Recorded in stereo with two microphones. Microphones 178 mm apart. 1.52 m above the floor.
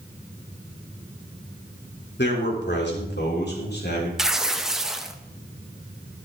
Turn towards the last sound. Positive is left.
turn(degrees=0)  # may be behind; listen again after turning